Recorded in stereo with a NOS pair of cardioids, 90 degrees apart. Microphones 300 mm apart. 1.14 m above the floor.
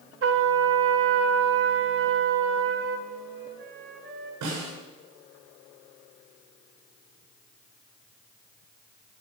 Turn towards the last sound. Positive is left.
turn(degrees=-70)